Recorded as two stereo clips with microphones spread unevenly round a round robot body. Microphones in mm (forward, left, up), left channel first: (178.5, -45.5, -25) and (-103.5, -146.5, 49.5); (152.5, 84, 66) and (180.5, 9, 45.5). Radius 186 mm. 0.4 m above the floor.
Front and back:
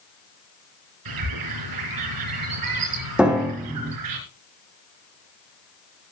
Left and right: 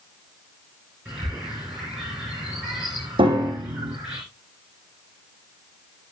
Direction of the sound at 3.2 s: 75° right.